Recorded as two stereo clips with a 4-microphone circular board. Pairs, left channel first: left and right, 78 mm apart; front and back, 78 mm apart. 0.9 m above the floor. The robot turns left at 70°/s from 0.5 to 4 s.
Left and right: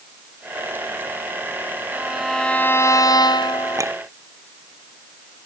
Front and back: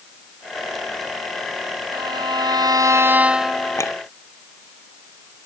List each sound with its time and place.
1.9 s a violin: 155° right; by 3.8 s 70° left
3.8 s a clink: 45° right; by 4.0 s 60° right